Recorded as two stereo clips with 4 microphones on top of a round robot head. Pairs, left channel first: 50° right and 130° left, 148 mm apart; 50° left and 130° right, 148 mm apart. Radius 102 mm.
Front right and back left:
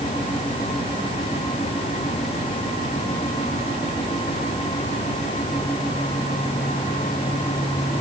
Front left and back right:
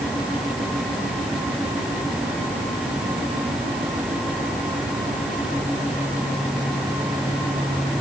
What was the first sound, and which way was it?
Only background noise.